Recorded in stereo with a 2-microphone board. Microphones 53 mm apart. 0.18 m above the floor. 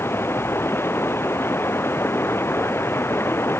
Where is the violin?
No violin in this recording.